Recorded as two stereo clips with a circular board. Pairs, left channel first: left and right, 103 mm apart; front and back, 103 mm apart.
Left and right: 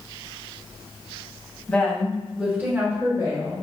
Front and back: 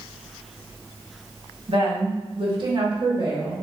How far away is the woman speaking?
About 1.3 m.